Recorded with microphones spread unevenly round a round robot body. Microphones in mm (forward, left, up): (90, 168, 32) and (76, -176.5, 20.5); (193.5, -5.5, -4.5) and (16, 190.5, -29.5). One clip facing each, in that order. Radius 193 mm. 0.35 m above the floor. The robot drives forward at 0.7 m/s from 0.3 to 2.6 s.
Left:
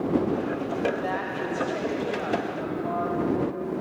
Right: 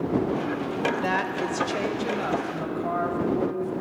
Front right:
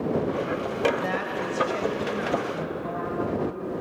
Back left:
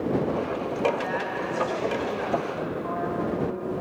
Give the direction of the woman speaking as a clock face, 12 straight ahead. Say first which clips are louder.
Right 2 dB, front right 1 dB; 3 o'clock.